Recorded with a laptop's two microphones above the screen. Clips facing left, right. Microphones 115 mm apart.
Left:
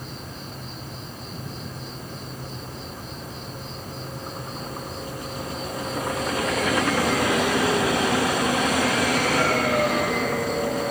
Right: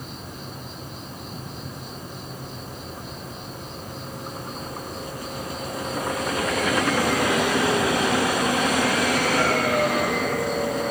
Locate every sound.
0.0 s an insect: 20° right (ahead or behind), 8.5 m